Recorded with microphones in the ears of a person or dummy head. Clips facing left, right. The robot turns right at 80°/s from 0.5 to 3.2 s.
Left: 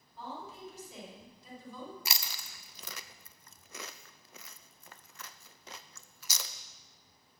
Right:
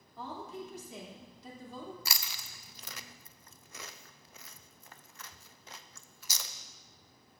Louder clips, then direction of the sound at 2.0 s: Left 1 dB; 15° left (ahead or behind).